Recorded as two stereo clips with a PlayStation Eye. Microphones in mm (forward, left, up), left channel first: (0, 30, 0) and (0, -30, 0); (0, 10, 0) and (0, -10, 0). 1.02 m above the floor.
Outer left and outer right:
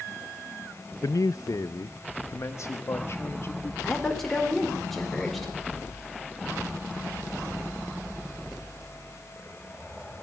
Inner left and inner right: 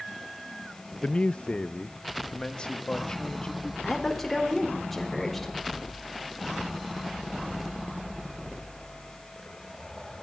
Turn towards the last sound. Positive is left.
turn(degrees=5)  # may be behind; listen again after turning